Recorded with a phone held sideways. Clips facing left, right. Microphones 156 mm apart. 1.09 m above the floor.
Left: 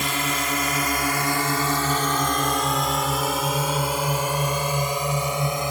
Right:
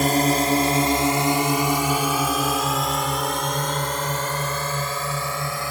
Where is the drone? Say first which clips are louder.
Right 8 dB; 40° right (ahead or behind); by 5.7 s 20° left (ahead or behind).